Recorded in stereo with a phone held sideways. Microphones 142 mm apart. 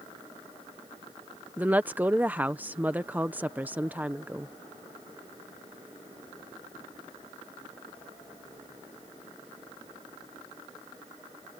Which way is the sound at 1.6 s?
10° right (ahead or behind).